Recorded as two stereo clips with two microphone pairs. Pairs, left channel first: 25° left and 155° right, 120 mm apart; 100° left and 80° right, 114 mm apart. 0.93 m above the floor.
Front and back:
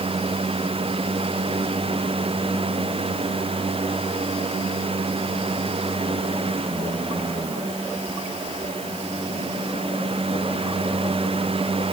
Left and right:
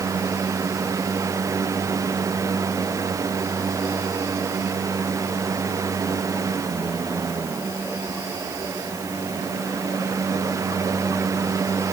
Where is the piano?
No piano in this recording.